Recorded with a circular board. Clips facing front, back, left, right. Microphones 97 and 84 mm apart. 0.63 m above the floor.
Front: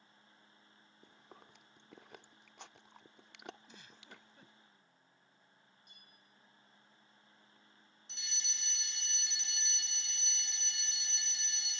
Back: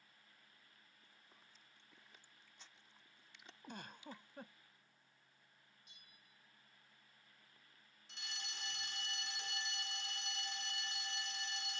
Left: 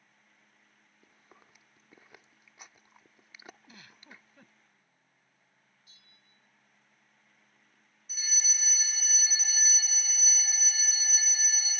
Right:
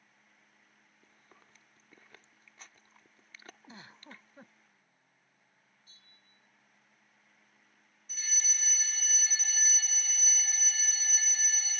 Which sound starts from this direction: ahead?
Chewing, at 1.0 s.